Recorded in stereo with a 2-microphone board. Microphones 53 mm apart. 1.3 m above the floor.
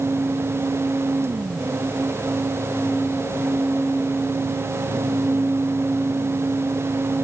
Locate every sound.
Only background noise.